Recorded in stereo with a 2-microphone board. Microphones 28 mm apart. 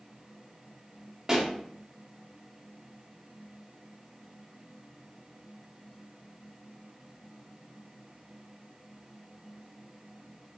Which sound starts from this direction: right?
A pop, at 1.3 s.